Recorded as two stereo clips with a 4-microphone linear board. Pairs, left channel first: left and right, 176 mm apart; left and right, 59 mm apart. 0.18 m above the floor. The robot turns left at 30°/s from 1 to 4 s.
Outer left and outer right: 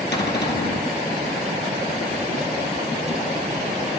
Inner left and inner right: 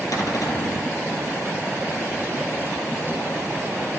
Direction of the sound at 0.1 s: 75° left (ahead or behind).